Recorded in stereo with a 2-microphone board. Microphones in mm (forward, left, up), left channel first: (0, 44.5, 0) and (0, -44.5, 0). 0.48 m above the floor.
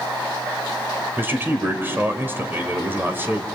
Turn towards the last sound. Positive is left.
turn(degrees=-25)  # may be behind; listen again after turning